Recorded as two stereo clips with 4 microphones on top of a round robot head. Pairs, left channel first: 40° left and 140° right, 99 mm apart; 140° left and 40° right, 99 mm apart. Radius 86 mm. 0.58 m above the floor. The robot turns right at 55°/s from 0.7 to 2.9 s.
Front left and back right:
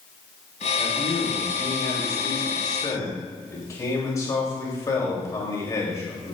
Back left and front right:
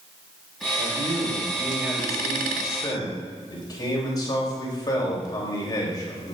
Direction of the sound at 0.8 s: 20° right.